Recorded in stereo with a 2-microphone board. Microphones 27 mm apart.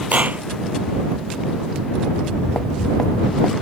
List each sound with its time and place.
0.1 s a clap: 75° right (ahead or behind)
2.1 s footsteps: 35° left (ahead or behind); by 3.5 s 30° left (ahead or behind)